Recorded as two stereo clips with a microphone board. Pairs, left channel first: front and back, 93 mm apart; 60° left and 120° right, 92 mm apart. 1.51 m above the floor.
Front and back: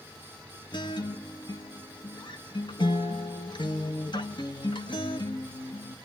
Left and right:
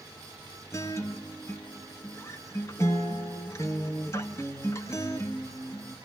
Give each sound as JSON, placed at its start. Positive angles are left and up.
{"t": 0.7, "sound": "a guitar", "azimuth_deg": 10, "distance_m": 1.1}